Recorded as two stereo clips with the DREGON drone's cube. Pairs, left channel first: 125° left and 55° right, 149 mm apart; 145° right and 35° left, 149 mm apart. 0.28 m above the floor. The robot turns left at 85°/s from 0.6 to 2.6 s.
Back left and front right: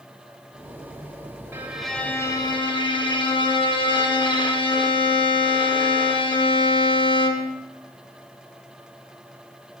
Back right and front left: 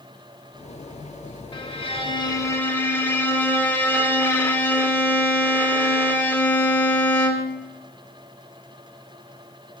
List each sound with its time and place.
1.5 s a violin: 120° right, 0.5 m; by 7.6 s 150° left, 0.5 m